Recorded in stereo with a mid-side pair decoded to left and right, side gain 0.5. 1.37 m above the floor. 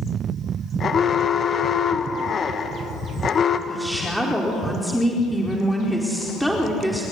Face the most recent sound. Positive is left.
turn(degrees=-5)